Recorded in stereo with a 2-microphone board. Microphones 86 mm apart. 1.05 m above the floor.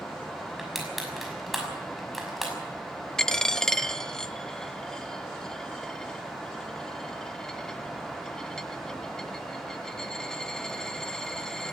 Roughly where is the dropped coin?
Centre.